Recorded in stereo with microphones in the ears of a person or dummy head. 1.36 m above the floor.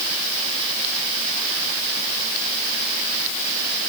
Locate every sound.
Only background noise.